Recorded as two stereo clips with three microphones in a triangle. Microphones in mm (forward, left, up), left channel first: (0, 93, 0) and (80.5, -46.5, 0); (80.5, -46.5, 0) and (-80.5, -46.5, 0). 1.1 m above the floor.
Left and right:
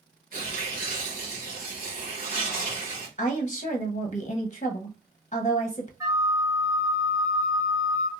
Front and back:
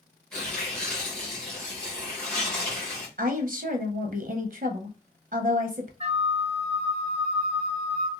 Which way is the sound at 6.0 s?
130° right.